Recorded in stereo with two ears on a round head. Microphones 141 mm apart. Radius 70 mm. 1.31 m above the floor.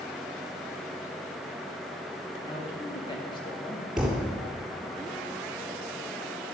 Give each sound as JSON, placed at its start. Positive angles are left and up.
{"t": 2.4, "sound": "a man speaking", "side_deg": 35, "distance_m": 3.5}
{"t": 4.0, "sound": "a thud", "side_deg": -5, "distance_m": 5.0}